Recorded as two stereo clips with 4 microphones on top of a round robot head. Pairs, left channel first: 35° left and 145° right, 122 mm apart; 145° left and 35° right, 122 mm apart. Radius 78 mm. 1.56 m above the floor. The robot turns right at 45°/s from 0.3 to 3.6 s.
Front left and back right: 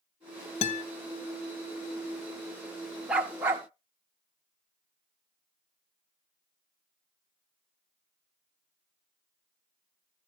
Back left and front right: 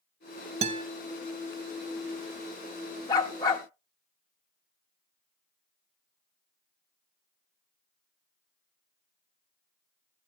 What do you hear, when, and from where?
0.6 s a guitar: straight ahead, 0.6 m; by 0.8 s 10° left, 0.6 m
3.1 s a dog barking: 140° left, 0.9 m; by 3.6 s 160° left, 0.9 m